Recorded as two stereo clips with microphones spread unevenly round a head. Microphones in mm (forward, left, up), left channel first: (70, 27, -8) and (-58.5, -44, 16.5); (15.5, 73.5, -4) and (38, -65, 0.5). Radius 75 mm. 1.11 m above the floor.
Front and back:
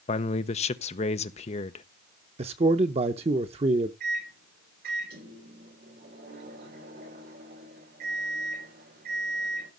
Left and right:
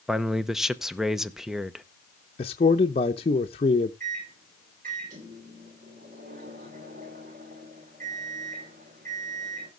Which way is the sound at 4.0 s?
125° right.